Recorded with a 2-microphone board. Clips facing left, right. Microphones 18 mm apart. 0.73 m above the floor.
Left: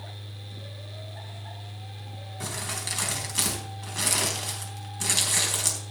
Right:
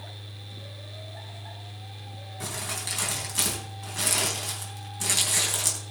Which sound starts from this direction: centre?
Crumpling, at 2.4 s.